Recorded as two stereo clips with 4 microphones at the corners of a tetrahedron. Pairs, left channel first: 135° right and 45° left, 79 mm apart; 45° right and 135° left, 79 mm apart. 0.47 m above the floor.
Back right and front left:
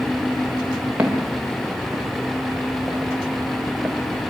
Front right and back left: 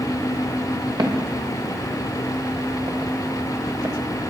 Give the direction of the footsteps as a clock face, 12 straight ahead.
8 o'clock.